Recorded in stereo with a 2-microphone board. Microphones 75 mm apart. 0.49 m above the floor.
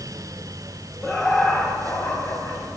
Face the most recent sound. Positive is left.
turn(degrees=15)  # may be behind; listen again after turning